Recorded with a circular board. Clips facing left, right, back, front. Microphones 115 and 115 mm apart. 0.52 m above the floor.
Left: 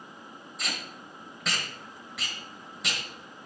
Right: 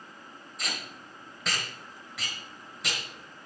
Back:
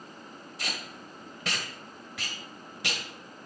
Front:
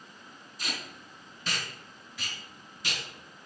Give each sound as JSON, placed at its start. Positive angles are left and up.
{"t": 0.6, "sound": "tape being pulled", "azimuth_deg": 180, "distance_m": 1.3}